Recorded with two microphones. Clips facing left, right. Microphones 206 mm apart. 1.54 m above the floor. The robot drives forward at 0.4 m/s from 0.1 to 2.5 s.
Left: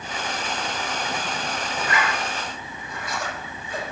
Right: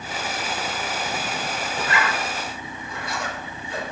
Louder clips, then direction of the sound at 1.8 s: Right 1 dB; 25° right (ahead or behind).